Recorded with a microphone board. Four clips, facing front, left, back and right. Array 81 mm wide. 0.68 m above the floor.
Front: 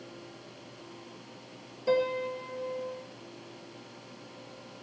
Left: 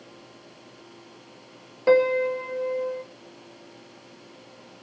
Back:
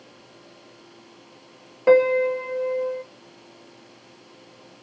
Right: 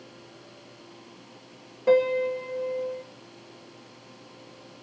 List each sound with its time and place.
1.9 s a piano: 160° left, 0.8 m